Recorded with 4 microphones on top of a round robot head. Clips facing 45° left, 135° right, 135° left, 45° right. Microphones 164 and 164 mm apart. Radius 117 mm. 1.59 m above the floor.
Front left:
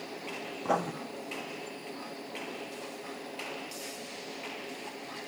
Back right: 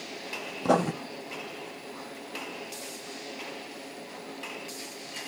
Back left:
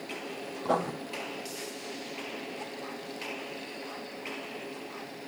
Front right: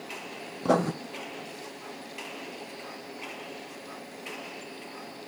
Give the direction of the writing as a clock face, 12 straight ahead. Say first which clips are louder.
Back right 7 dB, front right 5 dB; 3 o'clock.